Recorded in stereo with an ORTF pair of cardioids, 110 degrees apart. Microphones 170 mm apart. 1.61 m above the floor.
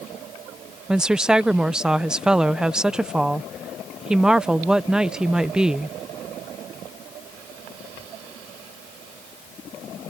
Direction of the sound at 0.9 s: 5° right.